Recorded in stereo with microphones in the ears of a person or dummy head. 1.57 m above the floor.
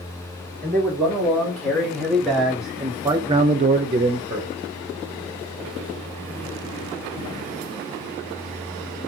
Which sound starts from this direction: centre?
A man speaking, at 0.6 s.